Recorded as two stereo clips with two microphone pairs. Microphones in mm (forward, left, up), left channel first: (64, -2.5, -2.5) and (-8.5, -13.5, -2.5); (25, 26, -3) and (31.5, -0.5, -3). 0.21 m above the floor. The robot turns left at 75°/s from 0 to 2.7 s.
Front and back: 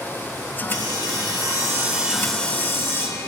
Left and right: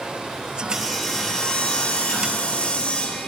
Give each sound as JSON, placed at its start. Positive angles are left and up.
{"t": 0.7, "sound": "sawing", "azimuth_deg": -145, "distance_m": 3.5}